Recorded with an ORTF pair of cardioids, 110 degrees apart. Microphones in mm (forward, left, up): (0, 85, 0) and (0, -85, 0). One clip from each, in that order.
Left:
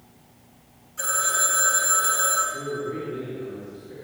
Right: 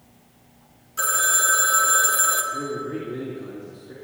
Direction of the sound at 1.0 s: 60° right.